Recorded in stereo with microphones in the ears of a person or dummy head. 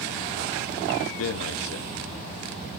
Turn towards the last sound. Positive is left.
turn(degrees=80)